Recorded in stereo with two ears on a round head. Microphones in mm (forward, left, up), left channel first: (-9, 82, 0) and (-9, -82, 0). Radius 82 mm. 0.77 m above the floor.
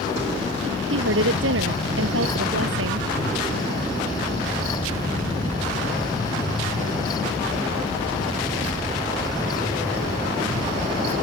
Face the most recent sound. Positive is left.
turn(degrees=-75)  # may be behind; listen again after turning